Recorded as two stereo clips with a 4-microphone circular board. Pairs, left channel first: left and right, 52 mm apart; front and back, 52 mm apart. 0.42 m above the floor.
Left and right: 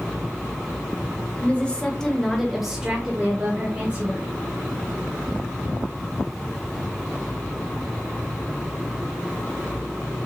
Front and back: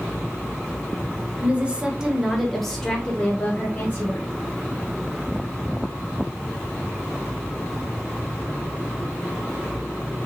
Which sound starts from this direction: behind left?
A woman speaking, at 1.4 s.